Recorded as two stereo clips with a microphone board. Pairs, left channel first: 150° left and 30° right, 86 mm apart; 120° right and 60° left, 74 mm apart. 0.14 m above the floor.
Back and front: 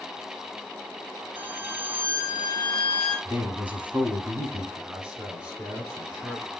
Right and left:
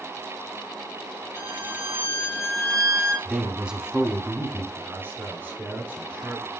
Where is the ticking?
No ticking in this recording.